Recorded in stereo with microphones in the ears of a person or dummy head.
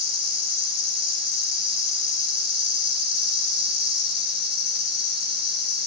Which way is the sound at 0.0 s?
70° left (ahead or behind).